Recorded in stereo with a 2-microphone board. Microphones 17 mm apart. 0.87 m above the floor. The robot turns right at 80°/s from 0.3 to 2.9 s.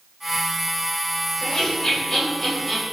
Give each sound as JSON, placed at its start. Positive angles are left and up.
{"t": 1.4, "sound": "laughter", "side_deg": 45, "distance_m": 1.5}